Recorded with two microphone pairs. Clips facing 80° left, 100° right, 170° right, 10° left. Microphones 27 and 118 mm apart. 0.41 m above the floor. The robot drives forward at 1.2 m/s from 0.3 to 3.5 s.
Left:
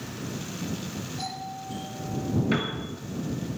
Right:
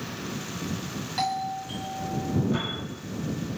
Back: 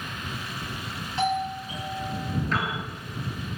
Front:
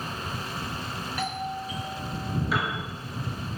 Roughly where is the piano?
Left.